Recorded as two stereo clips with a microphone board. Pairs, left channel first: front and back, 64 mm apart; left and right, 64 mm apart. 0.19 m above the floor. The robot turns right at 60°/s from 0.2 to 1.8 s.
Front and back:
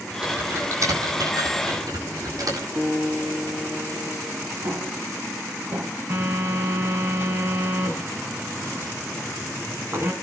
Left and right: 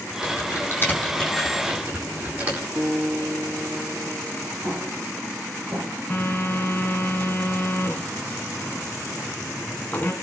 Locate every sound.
0.2 s typing on a keyboard: 110° left, 8 m; by 2.6 s 155° right, 8 m
2.8 s a guitar: 135° right, 8 m
4.6 s an explosion: 155° right, 5 m
6.1 s a phone buzzing: 145° left, 2.5 m